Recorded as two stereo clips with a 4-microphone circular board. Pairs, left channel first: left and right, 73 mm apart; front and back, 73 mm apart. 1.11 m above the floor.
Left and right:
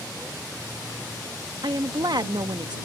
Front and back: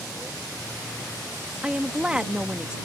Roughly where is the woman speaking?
Right.